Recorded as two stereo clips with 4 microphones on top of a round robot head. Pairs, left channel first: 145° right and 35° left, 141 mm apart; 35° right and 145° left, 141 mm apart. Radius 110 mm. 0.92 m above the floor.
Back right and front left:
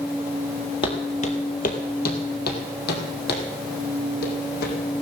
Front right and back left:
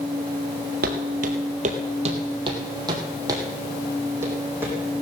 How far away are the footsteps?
About 1.6 m.